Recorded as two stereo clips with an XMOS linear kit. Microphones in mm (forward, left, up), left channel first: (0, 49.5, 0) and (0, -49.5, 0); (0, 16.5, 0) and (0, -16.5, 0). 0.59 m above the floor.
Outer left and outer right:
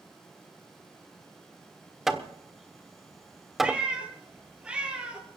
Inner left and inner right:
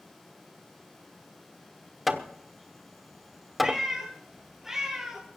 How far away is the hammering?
About 1.3 m.